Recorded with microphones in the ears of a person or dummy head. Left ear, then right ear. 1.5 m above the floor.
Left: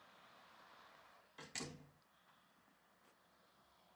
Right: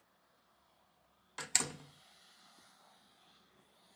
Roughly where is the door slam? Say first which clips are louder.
Right 13 dB; right.